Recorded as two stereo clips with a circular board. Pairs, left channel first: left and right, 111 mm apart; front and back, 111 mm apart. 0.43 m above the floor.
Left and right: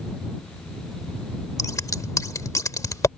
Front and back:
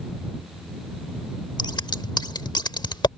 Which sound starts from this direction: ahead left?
Scissors, at 1.6 s.